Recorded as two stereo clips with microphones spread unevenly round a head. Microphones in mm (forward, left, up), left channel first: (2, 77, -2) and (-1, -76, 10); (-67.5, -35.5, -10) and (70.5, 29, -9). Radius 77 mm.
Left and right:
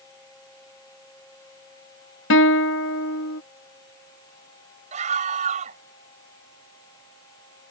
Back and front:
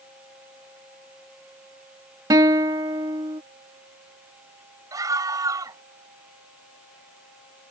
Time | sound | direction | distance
2.3 | a guitar | 90° left | ?
4.9 | a scream | 45° right | ?